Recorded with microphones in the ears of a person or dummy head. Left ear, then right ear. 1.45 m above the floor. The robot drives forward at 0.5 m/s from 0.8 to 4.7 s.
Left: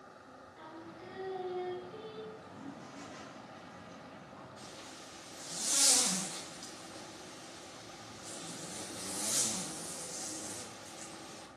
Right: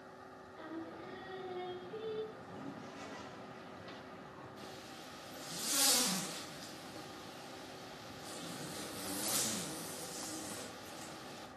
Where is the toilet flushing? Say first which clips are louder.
Even; 25° right (ahead or behind), 0.6 m; by 4.5 s 10° right (ahead or behind), 1.6 m.